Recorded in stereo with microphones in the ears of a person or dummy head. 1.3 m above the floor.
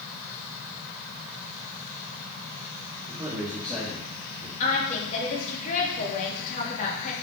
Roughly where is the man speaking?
Centre.